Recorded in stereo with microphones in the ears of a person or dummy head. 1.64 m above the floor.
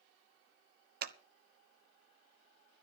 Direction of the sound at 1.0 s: 65° right (ahead or behind).